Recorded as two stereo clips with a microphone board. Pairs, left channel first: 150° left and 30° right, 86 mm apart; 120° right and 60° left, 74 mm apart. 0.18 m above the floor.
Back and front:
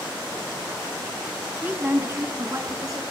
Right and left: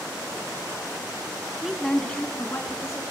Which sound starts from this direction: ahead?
A woman speaking, at 1.6 s.